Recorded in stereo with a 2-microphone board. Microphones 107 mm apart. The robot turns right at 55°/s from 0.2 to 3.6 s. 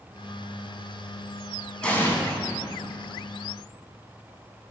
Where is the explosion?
10° left (ahead or behind), 1.0 m; by 2.2 s 30° left (ahead or behind), 1.0 m.